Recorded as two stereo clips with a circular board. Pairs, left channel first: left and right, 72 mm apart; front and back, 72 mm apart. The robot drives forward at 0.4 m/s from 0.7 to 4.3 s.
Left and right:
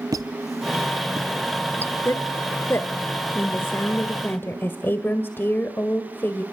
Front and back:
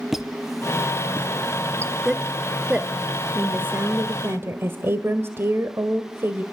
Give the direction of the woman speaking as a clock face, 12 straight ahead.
9 o'clock.